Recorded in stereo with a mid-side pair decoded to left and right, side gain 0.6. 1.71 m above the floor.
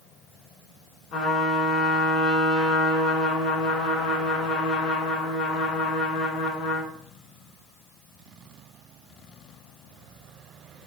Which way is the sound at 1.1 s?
65° left.